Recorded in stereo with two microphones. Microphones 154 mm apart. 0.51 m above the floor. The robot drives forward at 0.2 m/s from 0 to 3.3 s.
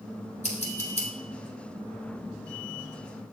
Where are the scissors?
50° left (ahead or behind), 1.1 m; by 1.1 s 45° left (ahead or behind), 1.1 m.